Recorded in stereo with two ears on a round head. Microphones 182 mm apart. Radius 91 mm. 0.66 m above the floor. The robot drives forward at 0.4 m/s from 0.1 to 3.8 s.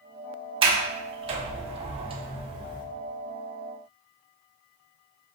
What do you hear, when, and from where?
0.6 s a sliding door: 25° right (ahead or behind), 0.8 m; by 2.9 s 20° right (ahead or behind), 0.9 m